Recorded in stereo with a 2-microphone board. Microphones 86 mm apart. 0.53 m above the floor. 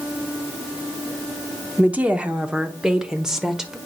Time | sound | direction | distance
1.8 | a woman speaking | 15° right (ahead or behind) | 0.9 m